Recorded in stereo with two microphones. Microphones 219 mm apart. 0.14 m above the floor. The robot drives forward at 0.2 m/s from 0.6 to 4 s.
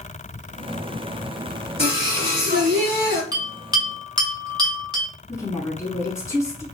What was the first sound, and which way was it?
Singing, 45° right (ahead or behind).